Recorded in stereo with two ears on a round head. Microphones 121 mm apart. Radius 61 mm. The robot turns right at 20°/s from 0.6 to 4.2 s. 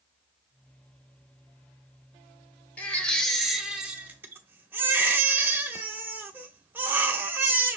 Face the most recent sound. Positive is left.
turn(degrees=-15)  # may be behind; listen again after turning